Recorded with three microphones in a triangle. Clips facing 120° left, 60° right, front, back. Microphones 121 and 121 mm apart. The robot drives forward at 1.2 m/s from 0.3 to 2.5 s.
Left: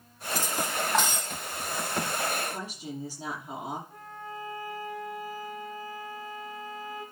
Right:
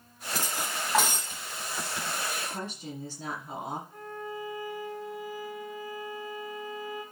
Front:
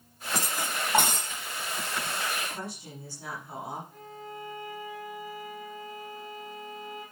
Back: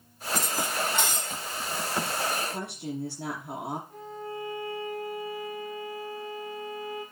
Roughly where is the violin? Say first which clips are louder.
Right 3 dB, back 5 dB; behind.